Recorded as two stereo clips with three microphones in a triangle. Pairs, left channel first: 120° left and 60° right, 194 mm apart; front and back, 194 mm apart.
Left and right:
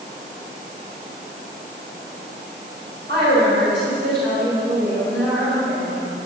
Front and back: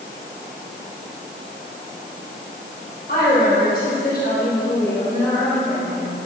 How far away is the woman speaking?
About 4.5 m.